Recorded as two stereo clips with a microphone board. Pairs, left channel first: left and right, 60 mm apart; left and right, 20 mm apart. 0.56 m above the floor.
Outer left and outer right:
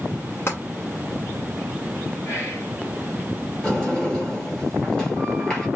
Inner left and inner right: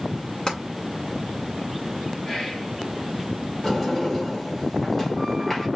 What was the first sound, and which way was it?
Tapping, 40° left (ahead or behind).